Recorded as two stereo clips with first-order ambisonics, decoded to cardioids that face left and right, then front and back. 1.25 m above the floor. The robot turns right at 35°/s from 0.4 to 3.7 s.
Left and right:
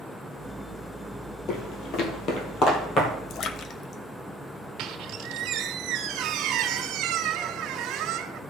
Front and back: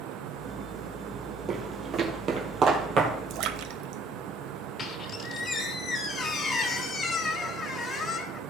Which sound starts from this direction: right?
A squeak, at 4.8 s.